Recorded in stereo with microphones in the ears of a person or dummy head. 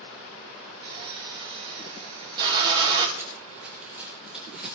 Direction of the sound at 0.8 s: 25° right (ahead or behind).